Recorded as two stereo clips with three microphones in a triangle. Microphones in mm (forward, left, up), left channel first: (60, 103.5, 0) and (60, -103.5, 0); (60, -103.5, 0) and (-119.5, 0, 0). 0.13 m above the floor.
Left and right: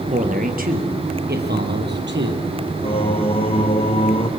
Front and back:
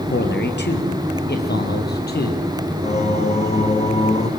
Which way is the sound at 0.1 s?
45° right.